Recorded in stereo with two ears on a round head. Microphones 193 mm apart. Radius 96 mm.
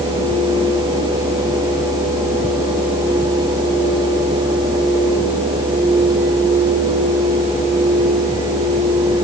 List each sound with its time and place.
Only background noise.